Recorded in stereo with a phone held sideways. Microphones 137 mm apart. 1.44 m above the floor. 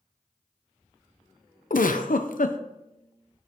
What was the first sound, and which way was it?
A giggle, 80° left.